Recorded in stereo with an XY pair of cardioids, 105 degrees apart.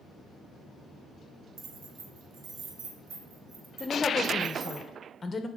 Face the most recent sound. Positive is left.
turn(degrees=30)